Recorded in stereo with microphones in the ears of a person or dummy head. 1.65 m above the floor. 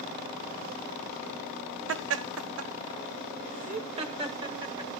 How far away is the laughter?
About 0.8 m.